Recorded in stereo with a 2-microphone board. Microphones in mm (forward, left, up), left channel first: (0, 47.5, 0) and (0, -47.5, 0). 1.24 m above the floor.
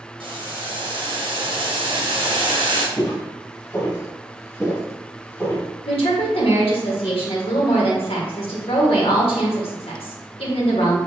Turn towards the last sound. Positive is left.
turn(degrees=85)